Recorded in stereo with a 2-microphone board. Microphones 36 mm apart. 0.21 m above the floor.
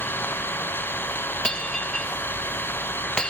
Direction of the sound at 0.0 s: 70° left (ahead or behind).